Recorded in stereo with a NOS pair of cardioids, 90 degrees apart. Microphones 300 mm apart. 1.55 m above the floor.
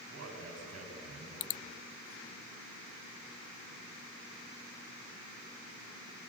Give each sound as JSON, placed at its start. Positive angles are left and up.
{"t": 0.1, "sound": "a man speaking", "azimuth_deg": -55, "distance_m": 9.5}